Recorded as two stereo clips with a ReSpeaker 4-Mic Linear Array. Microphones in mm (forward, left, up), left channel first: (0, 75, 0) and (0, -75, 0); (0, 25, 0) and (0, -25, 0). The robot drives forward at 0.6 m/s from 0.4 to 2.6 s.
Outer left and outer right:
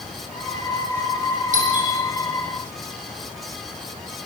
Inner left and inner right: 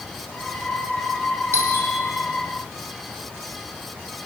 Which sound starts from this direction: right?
A doorbell, at 1.5 s.